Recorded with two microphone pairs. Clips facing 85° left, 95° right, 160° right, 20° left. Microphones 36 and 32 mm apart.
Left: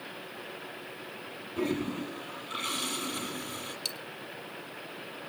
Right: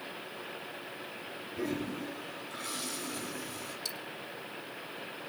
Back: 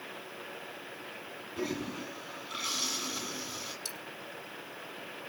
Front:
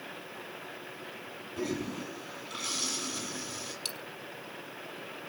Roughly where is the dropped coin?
Ahead left.